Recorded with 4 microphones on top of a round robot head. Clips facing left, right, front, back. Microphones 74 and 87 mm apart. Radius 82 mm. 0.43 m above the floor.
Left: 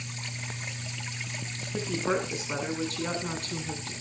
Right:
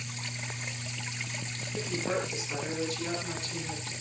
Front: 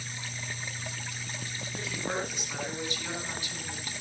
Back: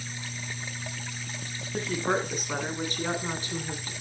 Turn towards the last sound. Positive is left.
turn(degrees=125)